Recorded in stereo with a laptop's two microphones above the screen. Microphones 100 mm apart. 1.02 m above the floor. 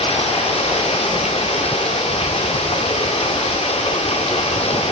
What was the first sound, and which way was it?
Running water, 80° left.